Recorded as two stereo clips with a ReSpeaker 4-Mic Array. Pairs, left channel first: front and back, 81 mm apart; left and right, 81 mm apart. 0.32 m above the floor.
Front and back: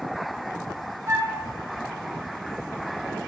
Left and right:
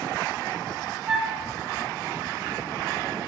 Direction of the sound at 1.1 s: 170° right.